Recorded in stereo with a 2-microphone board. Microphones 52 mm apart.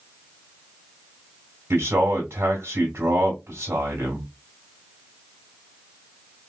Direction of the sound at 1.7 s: 55° right (ahead or behind).